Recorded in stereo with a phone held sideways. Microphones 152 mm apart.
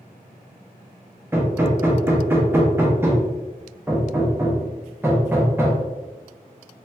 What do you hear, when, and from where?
1.3 s hammering: 15° right (ahead or behind), 0.5 m